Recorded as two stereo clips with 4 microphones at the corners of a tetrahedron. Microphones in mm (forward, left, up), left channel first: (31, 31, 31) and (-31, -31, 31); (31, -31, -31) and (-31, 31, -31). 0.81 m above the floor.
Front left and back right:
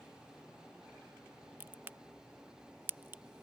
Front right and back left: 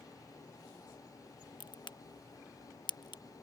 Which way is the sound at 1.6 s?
70° right.